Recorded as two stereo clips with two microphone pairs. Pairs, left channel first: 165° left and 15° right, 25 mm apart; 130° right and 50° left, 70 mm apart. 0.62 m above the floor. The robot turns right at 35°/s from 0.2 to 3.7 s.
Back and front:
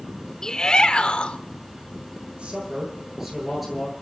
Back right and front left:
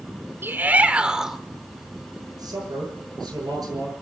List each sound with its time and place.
0.4 s a shout: 105° left, 1.9 m; by 1.4 s 135° left, 1.9 m
2.3 s a man speaking: 30° left, 10 m; by 3.9 s 80° left, 10 m